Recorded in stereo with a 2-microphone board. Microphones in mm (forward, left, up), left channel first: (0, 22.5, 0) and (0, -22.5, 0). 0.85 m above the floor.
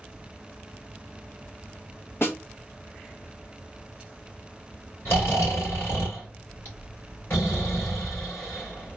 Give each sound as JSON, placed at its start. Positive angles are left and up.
{"t": 2.2, "sound": "a snare drum", "side_deg": 60, "distance_m": 1.2}
{"t": 5.0, "sound": "snoring", "side_deg": 60, "distance_m": 2.5}